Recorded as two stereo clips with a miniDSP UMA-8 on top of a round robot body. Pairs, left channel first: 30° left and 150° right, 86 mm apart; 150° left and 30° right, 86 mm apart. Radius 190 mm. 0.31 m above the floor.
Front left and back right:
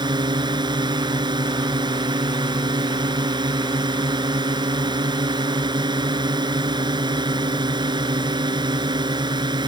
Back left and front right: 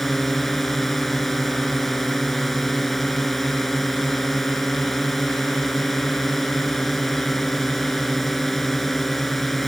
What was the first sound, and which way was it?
A drone, 120° right.